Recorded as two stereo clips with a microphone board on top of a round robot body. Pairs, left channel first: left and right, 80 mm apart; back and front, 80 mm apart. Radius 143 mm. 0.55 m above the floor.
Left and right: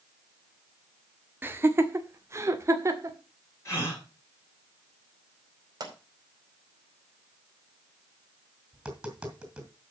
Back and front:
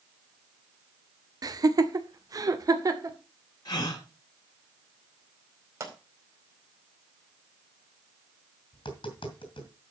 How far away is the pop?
About 4.5 m.